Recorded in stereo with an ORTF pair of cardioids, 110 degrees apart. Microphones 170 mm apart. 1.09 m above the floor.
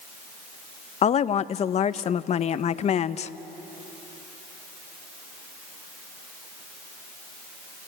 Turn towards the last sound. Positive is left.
turn(degrees=40)